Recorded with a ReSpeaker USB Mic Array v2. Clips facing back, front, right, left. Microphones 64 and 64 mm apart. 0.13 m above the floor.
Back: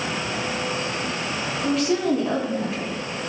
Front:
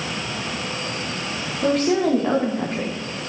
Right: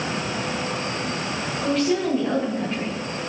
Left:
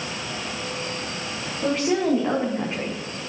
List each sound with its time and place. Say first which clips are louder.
1.6 s a woman speaking: front 3 dB, even; 25° left, 9.5 m; by 3.2 s 20° left, 11 m